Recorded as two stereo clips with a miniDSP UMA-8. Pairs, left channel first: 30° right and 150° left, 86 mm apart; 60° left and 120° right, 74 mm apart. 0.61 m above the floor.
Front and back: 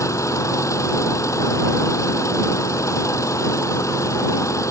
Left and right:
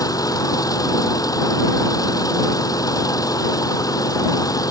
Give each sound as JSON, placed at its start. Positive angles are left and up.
{"t": 0.0, "sound": "an engine running", "azimuth_deg": 25}